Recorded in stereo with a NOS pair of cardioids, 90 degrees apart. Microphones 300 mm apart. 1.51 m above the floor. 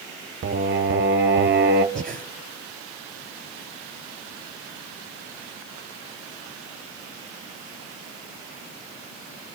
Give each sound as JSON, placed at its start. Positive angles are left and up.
{"t": 0.4, "sound": "singing", "azimuth_deg": -35, "distance_m": 1.0}
{"t": 1.9, "sound": "breathing", "azimuth_deg": -25, "distance_m": 3.0}